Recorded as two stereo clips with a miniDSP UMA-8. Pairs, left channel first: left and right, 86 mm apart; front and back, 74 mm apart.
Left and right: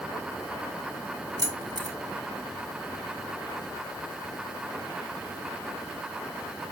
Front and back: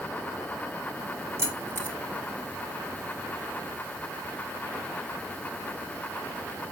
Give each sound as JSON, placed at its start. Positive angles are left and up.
{"t": 1.4, "sound": "keys jangling", "azimuth_deg": -125, "distance_m": 2.5}